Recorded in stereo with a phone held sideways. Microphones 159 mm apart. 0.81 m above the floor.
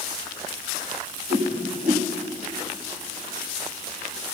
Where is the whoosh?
45° right (ahead or behind), 1.6 m.